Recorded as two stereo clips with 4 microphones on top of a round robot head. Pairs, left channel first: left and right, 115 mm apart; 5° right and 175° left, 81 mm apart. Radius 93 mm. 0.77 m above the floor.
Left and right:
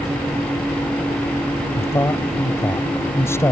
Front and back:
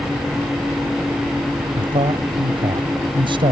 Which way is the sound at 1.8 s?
160° left.